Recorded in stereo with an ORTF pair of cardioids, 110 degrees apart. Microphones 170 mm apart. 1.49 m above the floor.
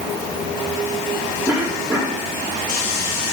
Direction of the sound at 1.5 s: 10° right.